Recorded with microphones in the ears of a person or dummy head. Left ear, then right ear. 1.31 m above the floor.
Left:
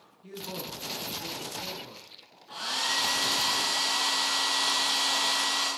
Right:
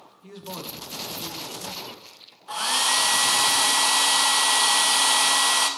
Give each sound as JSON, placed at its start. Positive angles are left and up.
{"t": 0.2, "sound": "a man speaking", "side_deg": -15, "distance_m": 0.8}
{"t": 2.5, "sound": "a hair dryer", "side_deg": -30, "distance_m": 0.7}